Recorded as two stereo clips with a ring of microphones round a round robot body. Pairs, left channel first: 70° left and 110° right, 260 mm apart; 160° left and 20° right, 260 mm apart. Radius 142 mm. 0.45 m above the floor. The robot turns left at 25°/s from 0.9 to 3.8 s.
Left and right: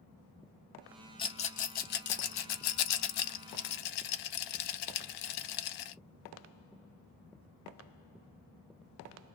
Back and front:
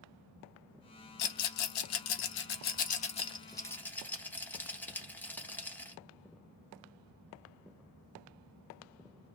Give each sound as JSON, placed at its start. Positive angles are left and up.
{"t": 1.2, "sound": "a rattle", "azimuth_deg": 140, "distance_m": 0.6}